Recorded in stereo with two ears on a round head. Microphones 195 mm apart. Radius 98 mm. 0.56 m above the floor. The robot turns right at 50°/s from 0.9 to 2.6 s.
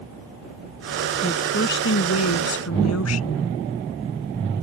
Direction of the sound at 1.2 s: 25° left.